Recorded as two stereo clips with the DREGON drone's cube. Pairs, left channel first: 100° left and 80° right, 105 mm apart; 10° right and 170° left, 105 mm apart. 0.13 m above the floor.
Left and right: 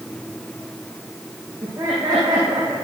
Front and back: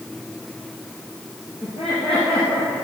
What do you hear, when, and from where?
1.6 s laughter: 30° right, 5 m